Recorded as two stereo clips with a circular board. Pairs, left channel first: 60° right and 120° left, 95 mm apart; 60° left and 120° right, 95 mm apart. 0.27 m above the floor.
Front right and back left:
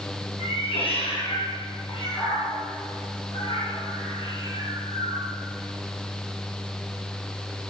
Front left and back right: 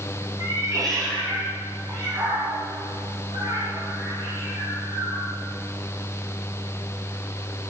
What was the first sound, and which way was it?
A cat meowing, 70° right.